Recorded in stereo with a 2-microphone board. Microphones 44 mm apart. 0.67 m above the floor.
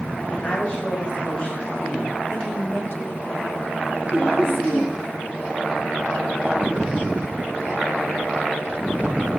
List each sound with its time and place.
0.3 s a woman speaking: 35° left (ahead or behind), 3.5 m; by 2.2 s 25° left (ahead or behind), 5.5 m
2.3 s a woman speaking: 65° left (ahead or behind), 2.5 m
4.1 s laughter: 5° right (ahead or behind), 9 m